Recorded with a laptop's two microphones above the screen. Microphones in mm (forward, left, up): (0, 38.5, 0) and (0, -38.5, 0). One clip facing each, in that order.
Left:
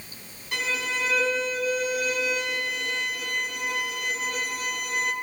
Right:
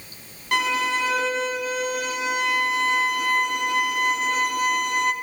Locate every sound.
0.5 s a violin: 65° right (ahead or behind), 2.5 m